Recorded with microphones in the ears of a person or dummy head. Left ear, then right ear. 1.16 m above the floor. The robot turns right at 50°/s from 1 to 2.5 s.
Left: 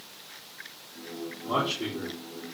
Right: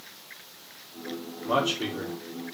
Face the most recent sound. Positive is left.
turn(degrees=-80)